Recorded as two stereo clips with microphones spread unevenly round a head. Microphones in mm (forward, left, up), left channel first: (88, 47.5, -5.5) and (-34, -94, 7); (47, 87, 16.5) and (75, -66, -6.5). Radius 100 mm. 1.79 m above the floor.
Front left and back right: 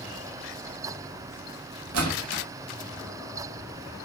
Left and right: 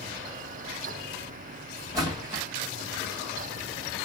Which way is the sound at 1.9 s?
155° right.